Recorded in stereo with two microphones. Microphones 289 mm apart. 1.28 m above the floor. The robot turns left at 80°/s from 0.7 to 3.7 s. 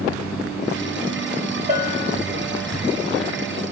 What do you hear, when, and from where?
1.7 s a bell: 30° right, 3 m; by 2.2 s 70° right, 3 m